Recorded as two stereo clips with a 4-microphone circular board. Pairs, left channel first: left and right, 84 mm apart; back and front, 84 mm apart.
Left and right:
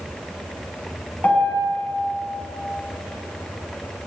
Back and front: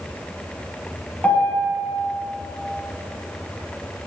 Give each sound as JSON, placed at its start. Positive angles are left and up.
{"t": 1.2, "sound": "a piano", "azimuth_deg": 135, "distance_m": 0.6}